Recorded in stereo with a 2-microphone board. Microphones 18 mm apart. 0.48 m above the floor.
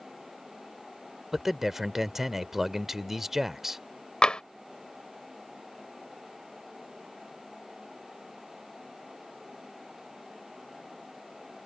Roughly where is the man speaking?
Centre.